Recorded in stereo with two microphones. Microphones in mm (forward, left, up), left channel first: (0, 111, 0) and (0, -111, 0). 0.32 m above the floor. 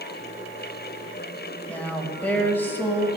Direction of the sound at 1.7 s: 5° left (ahead or behind).